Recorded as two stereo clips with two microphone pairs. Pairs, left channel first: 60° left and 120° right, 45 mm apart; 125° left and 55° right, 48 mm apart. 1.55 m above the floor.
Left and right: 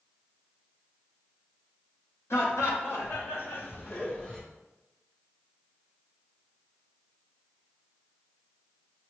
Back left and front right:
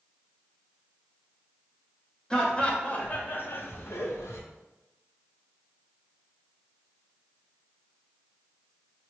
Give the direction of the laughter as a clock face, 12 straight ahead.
10 o'clock.